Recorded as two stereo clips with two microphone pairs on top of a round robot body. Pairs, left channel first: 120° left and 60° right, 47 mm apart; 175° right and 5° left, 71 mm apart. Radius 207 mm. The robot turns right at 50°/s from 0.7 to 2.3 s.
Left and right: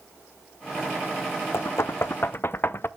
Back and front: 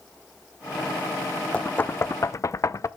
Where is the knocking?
115° left, 0.6 m; by 2.9 s 150° left, 0.6 m.